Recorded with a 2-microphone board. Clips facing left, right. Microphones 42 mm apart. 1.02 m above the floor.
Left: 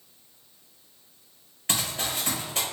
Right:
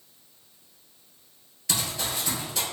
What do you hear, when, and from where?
1.7 s running footsteps: 40° left (ahead or behind), 1.2 m